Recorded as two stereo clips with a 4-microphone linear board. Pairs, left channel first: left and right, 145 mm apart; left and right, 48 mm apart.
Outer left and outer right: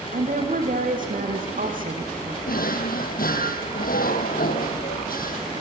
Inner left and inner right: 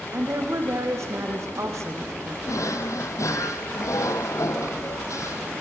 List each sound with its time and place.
0.1 s a woman speaking: 65° right (ahead or behind), 6.5 m; by 2.4 s 70° right (ahead or behind), 5.5 m
2.5 s a drawer: 75° left (ahead or behind), 1.9 m